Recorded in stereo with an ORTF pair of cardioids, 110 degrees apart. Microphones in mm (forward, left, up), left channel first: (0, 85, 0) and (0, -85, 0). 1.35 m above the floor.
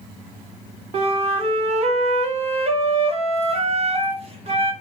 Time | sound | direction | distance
0.9 | a flute | 40° right | 1.3 m